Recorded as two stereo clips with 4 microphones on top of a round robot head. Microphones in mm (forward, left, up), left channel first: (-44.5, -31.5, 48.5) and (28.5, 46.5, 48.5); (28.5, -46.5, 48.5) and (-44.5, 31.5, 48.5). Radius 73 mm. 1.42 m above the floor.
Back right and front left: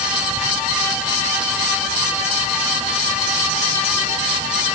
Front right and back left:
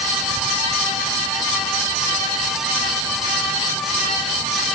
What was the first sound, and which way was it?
Only background noise.